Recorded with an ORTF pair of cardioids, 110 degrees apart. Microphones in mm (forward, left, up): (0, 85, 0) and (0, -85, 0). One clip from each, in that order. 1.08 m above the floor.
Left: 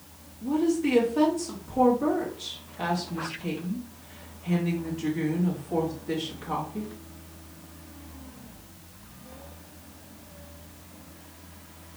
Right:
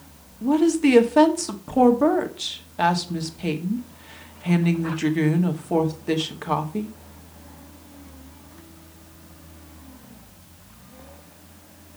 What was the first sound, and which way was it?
A woman speaking, 60° right.